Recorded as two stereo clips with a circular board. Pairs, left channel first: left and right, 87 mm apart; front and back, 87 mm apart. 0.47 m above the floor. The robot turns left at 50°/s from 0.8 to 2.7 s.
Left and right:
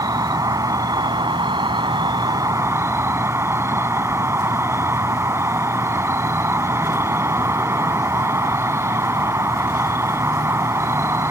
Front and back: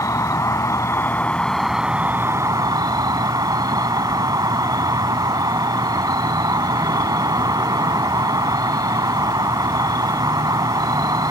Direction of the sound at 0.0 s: 50° right.